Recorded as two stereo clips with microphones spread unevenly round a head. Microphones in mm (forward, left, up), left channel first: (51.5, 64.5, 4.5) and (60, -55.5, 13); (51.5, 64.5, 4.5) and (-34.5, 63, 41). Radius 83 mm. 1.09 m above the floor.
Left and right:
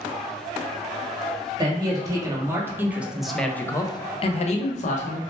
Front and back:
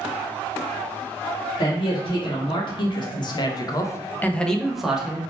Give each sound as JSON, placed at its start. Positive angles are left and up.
{"t": 1.6, "sound": "a man speaking", "azimuth_deg": -30, "distance_m": 1.3}